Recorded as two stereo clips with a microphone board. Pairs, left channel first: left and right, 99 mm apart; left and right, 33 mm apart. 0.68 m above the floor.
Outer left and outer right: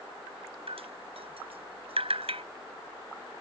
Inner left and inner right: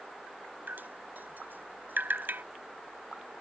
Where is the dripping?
75° right (ahead or behind).